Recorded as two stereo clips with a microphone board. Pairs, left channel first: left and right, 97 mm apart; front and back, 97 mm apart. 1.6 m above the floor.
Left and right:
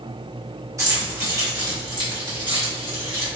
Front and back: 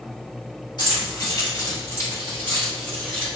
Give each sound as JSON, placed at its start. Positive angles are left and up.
{"t": 0.8, "sound": "keys jangling", "azimuth_deg": -35, "distance_m": 1.9}